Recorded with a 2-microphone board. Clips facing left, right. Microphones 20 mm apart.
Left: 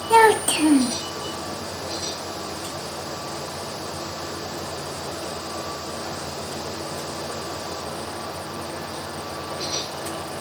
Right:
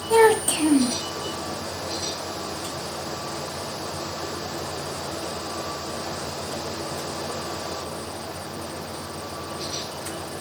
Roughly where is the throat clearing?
I don't hear throat clearing.